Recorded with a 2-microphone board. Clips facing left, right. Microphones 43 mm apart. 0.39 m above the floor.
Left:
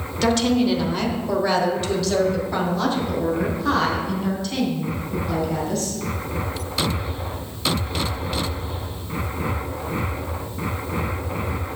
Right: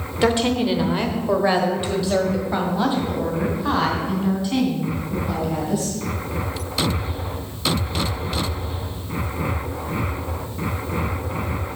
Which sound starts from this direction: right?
A woman speaking, at 0.2 s.